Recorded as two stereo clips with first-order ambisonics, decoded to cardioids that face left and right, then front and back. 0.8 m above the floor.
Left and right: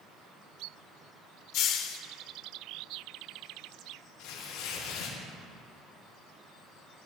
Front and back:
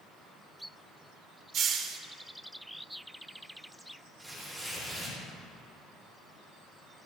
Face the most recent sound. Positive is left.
turn(degrees=90)